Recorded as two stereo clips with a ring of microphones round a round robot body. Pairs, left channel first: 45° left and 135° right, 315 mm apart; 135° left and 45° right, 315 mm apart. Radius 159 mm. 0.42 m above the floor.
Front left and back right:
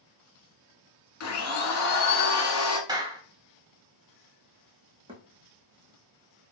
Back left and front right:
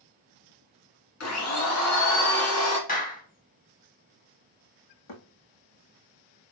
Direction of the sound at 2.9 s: 160° left.